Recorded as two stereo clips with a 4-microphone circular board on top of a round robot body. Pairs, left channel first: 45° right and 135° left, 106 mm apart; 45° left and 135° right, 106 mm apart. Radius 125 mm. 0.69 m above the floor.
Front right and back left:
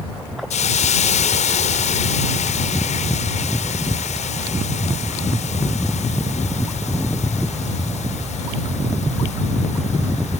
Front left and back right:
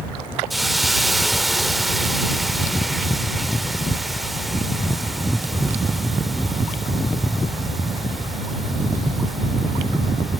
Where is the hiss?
45° right.